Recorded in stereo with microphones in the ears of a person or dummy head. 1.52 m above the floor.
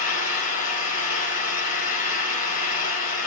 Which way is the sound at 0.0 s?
60° left (ahead or behind).